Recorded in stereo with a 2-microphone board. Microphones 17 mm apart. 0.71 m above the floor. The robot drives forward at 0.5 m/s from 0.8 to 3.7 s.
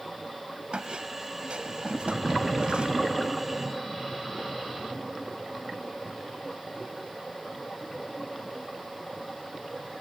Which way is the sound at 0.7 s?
80° right.